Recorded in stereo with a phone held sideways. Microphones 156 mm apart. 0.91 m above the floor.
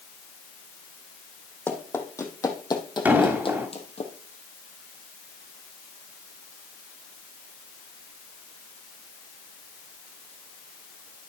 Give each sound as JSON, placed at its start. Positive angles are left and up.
{"t": 1.7, "sound": "running footsteps", "side_deg": 10, "distance_m": 2.5}
{"t": 3.0, "sound": "an explosion", "side_deg": -15, "distance_m": 1.9}